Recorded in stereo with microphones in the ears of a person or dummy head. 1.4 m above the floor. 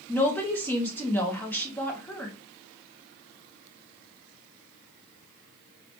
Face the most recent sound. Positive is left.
turn(degrees=5)  # may be behind; listen again after turning